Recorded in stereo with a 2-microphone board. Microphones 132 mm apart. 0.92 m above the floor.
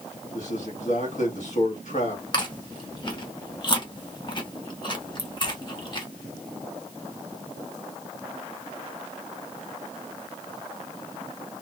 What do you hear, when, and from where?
0.3 s a man speaking: 60° left (ahead or behind), 1.6 m
2.3 s chewing: 35° left (ahead or behind), 1.0 m